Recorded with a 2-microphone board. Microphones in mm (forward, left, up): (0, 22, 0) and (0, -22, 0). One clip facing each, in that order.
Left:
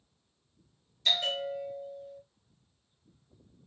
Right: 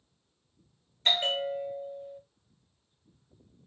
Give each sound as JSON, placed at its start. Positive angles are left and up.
{"t": 1.1, "sound": "a bell", "side_deg": -35, "distance_m": 1.2}